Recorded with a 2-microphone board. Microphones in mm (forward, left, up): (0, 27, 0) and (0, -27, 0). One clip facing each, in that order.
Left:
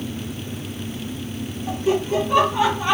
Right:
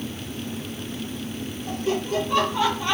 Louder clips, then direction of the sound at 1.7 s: Left 5 dB; 15° left (ahead or behind).